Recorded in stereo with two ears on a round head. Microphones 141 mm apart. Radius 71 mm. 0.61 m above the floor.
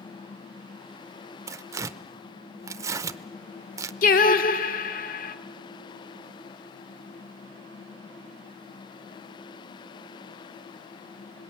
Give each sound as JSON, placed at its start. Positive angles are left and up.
{"t": 1.5, "sound": "tearing paper", "side_deg": -20, "distance_m": 0.5}
{"t": 4.0, "sound": "singing", "side_deg": 55, "distance_m": 1.1}